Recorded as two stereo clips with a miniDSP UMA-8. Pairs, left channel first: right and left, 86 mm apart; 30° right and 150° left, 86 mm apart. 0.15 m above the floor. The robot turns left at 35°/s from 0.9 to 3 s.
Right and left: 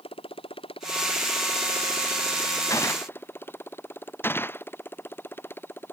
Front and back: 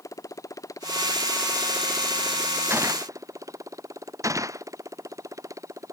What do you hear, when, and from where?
0.0 s a motorcycle: 85° right; by 5.9 s 155° right
2.7 s a gunshot: 145° right; by 4.7 s 155° right